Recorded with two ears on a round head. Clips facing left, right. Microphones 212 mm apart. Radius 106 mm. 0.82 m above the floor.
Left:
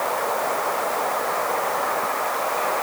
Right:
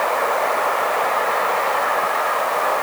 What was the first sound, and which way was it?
Only background noise.